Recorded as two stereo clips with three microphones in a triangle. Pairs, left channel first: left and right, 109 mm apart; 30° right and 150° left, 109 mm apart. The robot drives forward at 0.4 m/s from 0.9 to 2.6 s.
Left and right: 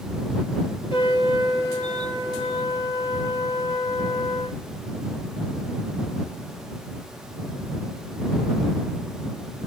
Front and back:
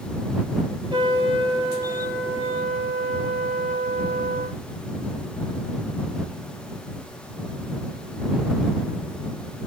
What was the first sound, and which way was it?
A trumpet, 115° left.